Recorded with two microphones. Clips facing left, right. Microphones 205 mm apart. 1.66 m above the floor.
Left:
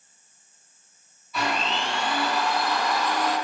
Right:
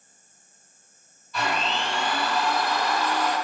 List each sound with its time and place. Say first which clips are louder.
1.3 s a blender: even; 5° left (ahead or behind), 1.9 m